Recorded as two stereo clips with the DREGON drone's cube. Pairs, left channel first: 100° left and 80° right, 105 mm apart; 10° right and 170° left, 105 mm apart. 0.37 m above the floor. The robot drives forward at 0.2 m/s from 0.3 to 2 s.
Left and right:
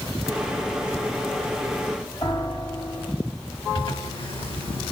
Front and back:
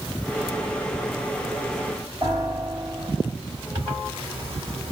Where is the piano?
140° left, 3 m.